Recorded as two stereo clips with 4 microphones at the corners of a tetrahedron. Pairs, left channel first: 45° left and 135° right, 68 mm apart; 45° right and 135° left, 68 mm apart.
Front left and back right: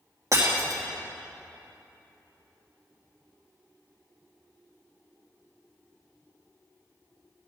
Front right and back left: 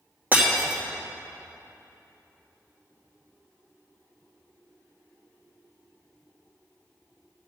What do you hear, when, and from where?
0.3 s breaking glass: 160° right, 3 m